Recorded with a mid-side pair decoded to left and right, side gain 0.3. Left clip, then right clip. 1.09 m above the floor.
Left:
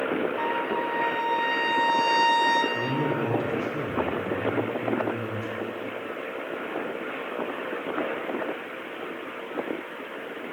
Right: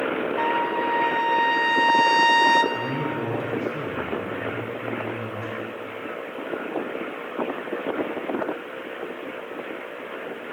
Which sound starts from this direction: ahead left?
A man speaking, at 2.7 s.